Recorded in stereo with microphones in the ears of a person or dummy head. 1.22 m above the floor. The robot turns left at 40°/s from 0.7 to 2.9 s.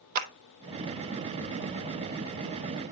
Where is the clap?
50° right (ahead or behind), 0.8 m.